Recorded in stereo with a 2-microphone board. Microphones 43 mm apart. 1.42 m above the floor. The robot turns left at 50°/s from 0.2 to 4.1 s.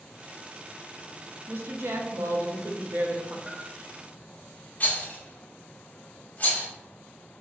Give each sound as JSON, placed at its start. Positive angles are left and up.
{"t": 1.5, "sound": "a woman speaking", "azimuth_deg": -50, "distance_m": 0.6}
{"t": 3.5, "sound": "a bell", "side_deg": 5, "distance_m": 0.6}
{"t": 4.8, "sound": "a rattle", "side_deg": 35, "distance_m": 0.7}